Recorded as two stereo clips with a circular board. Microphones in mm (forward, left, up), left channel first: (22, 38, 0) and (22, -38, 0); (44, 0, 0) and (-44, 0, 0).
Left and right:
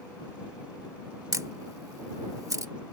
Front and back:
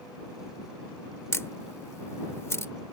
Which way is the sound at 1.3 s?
55° right.